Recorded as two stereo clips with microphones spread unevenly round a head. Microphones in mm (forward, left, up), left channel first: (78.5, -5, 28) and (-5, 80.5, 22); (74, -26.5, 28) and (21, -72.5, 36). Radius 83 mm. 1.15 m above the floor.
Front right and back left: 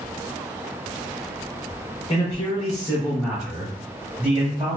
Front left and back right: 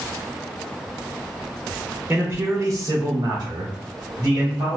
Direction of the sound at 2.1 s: 80° right.